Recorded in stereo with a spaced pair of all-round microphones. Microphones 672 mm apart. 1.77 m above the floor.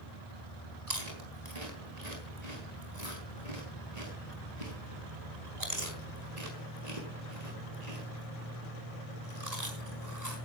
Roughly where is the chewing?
Right.